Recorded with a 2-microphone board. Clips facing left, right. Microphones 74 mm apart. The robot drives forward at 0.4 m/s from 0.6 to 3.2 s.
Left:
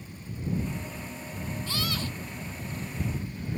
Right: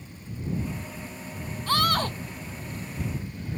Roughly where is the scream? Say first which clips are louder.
Right 12 dB; right.